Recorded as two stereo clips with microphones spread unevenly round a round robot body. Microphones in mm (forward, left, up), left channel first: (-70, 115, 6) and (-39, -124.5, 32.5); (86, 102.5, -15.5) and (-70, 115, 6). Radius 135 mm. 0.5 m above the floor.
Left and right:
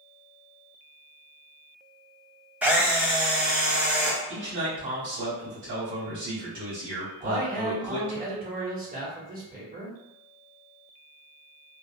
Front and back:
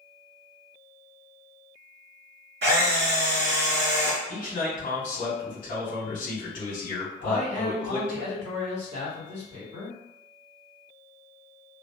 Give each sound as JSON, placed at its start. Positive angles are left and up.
{"t": 2.6, "sound": "a camera shutter", "azimuth_deg": -165, "distance_m": 0.8}
{"t": 4.3, "sound": "a man speaking", "azimuth_deg": -50, "distance_m": 1.7}
{"t": 7.2, "sound": "a man speaking", "azimuth_deg": -130, "distance_m": 1.3}